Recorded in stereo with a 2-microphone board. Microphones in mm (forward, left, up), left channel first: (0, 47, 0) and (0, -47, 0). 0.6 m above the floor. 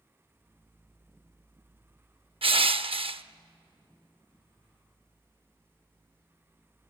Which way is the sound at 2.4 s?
75° right (ahead or behind).